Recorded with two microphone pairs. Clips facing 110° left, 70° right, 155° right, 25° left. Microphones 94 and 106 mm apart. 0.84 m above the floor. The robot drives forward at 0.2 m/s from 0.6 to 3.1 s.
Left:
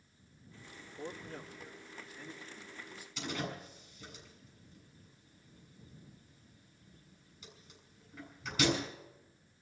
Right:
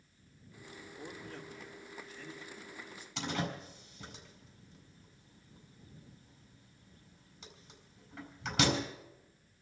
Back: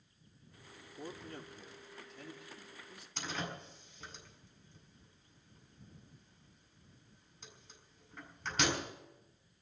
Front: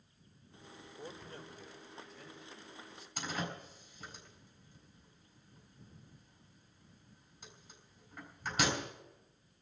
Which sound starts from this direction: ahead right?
A door slam, at 3.2 s.